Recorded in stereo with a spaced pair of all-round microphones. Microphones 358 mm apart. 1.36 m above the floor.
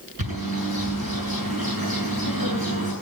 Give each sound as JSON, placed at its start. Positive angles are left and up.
{"t": 0.2, "sound": "a bird", "side_deg": -75, "distance_m": 9.0}